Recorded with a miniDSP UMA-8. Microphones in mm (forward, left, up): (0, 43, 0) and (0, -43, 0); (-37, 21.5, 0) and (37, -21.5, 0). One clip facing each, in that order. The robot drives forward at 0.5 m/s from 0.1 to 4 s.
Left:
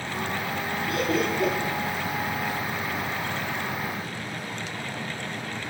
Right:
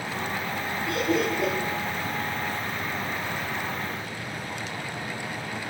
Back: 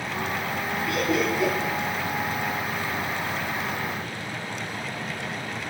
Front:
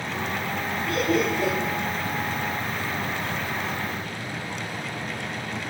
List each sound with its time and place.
0.9 s laughter: 80° right, 4.5 m; by 1.5 s 85° right, 4.5 m